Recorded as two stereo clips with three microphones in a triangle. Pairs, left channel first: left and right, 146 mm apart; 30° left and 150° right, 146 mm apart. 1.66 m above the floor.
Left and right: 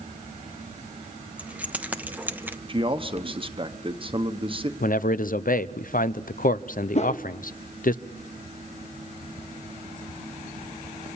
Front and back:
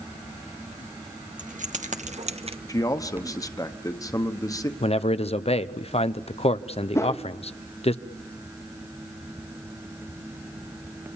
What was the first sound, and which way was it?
Keys jangling, 170° right.